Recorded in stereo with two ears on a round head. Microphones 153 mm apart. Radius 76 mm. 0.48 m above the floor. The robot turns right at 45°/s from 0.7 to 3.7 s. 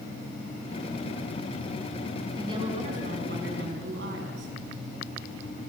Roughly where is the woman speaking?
Behind.